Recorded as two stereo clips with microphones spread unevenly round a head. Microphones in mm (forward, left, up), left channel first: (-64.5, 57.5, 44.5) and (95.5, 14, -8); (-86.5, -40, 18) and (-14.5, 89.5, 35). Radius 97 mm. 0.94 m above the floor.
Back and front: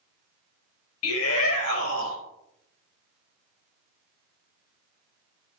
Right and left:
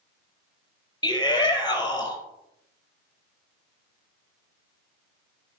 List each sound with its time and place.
1.0 s a shout: 175° left, 4.5 m